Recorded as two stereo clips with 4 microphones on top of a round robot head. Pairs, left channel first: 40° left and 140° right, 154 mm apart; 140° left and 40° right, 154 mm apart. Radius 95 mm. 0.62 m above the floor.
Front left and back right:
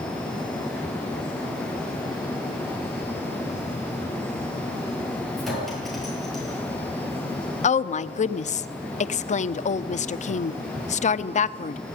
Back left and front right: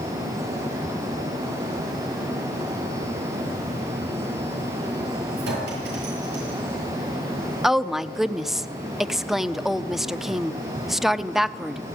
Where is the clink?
50° right, 9.5 m.